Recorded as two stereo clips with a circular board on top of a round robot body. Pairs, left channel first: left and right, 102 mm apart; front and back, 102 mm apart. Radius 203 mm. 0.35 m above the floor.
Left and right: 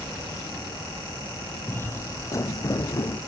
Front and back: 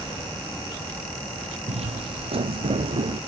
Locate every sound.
1.7 s footsteps: 165° left; by 3.2 s 145° left